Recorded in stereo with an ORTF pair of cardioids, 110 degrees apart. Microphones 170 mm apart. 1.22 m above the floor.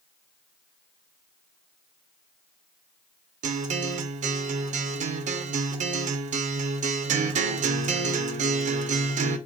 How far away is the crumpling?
No crumpling in this recording.